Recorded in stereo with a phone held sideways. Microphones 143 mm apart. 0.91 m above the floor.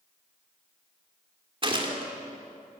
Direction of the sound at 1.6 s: 35° right (ahead or behind).